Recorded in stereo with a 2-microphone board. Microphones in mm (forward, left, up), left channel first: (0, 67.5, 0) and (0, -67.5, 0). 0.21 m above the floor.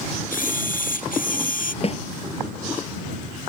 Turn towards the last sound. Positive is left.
turn(degrees=45)  # may be behind; listen again after turning